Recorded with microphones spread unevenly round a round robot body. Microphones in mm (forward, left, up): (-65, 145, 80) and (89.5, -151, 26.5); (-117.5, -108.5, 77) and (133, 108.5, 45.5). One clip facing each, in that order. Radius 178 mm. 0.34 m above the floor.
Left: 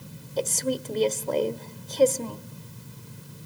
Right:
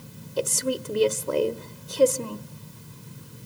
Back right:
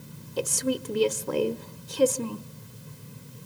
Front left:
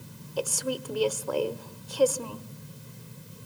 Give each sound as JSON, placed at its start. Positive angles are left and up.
{"t": 0.4, "sound": "a woman speaking", "azimuth_deg": -100, "distance_m": 1.4}